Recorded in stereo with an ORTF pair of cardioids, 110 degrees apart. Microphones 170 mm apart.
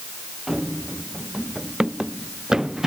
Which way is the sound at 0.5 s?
5° right.